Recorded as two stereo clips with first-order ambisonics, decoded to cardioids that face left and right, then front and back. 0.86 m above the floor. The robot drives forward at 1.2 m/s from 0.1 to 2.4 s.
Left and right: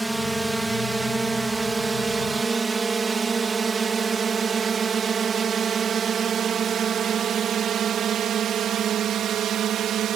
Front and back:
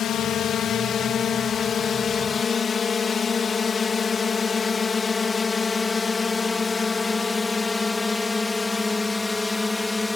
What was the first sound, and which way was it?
A drone, 10° right.